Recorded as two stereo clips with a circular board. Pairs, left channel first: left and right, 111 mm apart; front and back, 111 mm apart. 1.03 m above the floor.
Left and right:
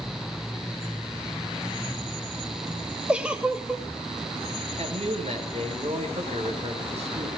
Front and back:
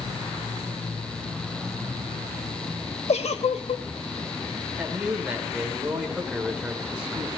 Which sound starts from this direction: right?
A man speaking, at 4.8 s.